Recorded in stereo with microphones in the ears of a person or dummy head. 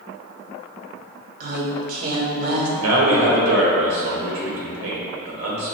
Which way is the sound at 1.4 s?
50° right (ahead or behind).